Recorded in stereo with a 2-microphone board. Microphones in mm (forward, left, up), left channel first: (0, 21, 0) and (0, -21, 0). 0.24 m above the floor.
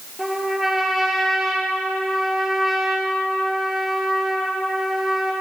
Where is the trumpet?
5° right (ahead or behind), 1.9 m.